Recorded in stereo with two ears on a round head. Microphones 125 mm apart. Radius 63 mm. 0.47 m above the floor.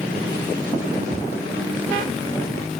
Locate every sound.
1.1 s footsteps: 80° left, 4.5 m